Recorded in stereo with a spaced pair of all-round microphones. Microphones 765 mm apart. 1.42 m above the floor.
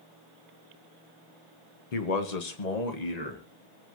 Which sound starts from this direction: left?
A man speaking, at 1.9 s.